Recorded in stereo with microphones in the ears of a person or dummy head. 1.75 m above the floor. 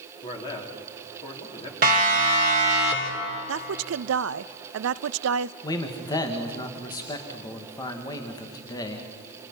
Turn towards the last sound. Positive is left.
turn(degrees=20)  # may be behind; listen again after turning